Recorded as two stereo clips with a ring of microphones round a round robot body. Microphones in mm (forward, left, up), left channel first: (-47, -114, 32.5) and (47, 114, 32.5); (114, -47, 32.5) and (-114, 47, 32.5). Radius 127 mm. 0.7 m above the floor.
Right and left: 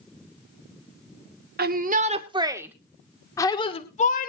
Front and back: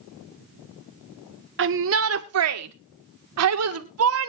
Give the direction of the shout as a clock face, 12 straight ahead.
8 o'clock.